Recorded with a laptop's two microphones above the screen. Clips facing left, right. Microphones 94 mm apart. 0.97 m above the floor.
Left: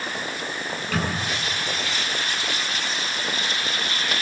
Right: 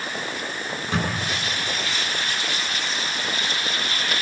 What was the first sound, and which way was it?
A microwave, 25° right (ahead or behind).